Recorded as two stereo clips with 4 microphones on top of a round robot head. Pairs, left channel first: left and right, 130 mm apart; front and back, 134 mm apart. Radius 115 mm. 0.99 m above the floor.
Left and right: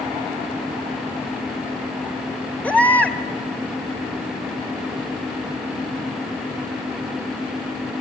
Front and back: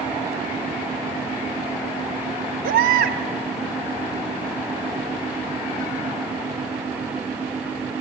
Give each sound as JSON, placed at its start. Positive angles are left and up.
{"t": 2.6, "sound": "a baby crying", "azimuth_deg": 170, "distance_m": 1.7}